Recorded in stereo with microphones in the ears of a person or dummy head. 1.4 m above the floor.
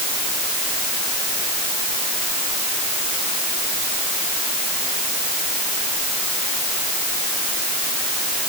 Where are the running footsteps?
I don't hear running footsteps.